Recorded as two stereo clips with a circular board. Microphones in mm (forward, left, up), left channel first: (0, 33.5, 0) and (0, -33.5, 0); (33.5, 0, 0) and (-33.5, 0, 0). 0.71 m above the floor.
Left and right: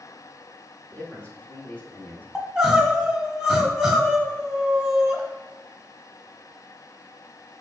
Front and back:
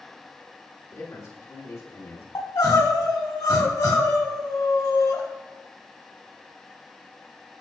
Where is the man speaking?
25° left, 2.5 m; by 2.2 s 35° left, 1.9 m.